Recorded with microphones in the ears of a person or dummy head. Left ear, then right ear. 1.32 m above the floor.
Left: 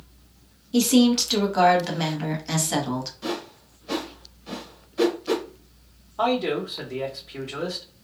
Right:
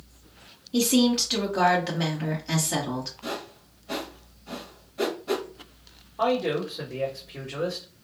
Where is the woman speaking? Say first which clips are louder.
Left 3 dB; 10° left (ahead or behind), 0.9 m.